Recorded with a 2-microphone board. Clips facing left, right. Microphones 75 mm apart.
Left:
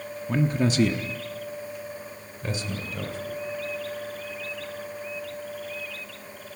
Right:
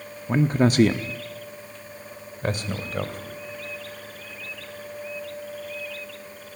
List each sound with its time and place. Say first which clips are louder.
0.3 s a man speaking: right 4 dB; 25° right (ahead or behind), 0.8 m; by 3.4 s 50° right (ahead or behind), 3 m